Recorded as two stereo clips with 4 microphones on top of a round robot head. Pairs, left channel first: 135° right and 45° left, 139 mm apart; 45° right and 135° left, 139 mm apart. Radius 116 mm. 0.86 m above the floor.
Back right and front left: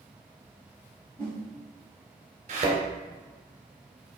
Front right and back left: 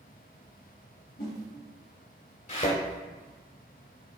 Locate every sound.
1.2 s a whoosh: 55° right, 3 m
2.5 s a thud: straight ahead, 2 m